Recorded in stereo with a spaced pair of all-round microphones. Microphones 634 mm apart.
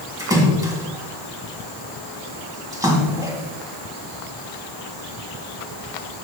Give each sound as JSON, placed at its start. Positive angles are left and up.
{"t": 0.2, "sound": "a splash", "side_deg": -5, "distance_m": 2.5}